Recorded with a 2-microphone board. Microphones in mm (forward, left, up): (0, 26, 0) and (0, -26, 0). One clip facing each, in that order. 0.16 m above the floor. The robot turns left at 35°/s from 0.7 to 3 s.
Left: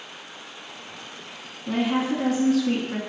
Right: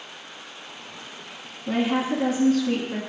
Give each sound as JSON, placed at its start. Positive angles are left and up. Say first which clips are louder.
{"t": 1.7, "sound": "a woman speaking", "louder": "even", "azimuth_deg": -165, "distance_m": 1.2}